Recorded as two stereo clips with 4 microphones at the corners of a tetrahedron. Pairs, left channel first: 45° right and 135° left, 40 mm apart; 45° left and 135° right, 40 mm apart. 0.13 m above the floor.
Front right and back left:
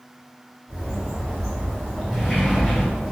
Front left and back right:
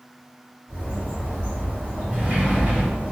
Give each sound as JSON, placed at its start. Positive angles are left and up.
{"t": 0.7, "sound": "a bird", "azimuth_deg": -140, "distance_m": 1.7}
{"t": 2.1, "sound": "a sliding door", "azimuth_deg": -140, "distance_m": 1.8}